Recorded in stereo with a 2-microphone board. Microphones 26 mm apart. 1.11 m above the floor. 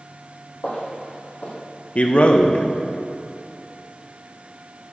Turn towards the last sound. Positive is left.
turn(degrees=50)  # may be behind; listen again after turning